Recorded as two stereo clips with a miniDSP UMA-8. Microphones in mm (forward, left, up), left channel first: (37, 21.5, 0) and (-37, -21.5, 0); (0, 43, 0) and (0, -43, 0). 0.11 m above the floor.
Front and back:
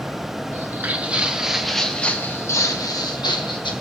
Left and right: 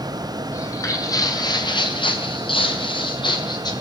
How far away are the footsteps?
About 2.5 m.